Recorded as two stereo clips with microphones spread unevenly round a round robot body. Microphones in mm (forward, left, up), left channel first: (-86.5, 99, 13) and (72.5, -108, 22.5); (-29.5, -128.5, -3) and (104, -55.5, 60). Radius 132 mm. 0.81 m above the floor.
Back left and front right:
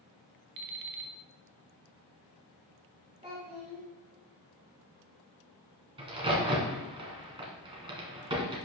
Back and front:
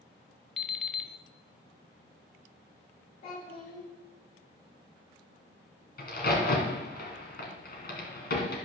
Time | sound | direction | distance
0.6 | an alarm clock | 60° right | 1.0 m
3.2 | a child speaking | 120° right | 2.5 m
6.0 | a crack | 120° right | 1.9 m